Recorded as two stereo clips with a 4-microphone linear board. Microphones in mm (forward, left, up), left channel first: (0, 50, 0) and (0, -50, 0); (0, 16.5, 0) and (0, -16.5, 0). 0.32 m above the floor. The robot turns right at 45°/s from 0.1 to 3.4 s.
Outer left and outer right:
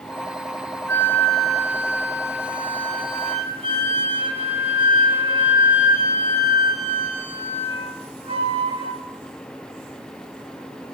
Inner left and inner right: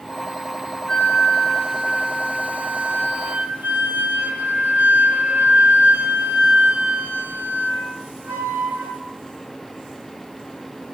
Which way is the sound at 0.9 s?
155° left.